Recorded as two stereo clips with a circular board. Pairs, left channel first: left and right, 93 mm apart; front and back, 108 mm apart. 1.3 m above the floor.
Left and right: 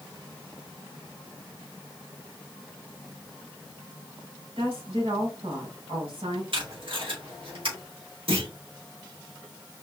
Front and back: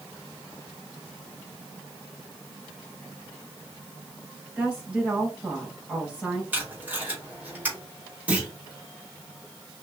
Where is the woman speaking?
105° right, 4 m.